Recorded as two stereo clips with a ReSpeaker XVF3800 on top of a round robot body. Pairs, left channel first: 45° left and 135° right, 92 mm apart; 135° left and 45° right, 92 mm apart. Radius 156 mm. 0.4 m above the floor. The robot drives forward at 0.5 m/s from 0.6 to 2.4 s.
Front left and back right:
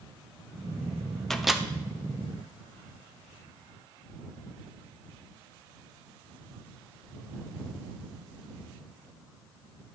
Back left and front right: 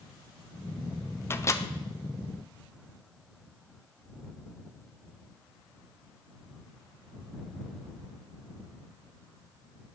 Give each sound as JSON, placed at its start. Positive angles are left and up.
{"t": 1.3, "sound": "a microwave", "azimuth_deg": 125, "distance_m": 0.8}